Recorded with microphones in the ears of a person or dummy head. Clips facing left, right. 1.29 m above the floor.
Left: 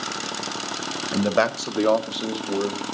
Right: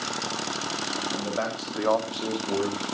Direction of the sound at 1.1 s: 75° left (ahead or behind).